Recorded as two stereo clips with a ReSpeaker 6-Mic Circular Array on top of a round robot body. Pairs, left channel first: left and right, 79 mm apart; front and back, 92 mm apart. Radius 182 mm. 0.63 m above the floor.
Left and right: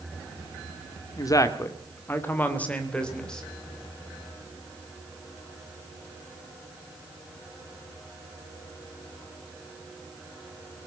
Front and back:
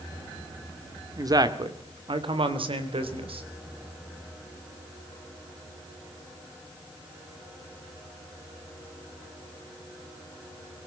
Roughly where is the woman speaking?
Behind left.